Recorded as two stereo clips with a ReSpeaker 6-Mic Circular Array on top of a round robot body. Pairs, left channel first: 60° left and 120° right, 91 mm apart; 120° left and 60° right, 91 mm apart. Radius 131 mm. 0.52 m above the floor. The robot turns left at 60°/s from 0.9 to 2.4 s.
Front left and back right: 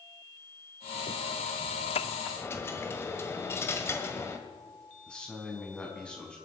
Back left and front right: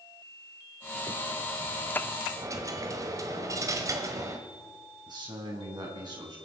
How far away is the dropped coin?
About 1.6 m.